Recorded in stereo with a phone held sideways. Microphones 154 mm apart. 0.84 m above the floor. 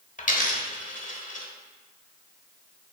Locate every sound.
0.2 s a dropped coin: 55° left (ahead or behind), 1.1 m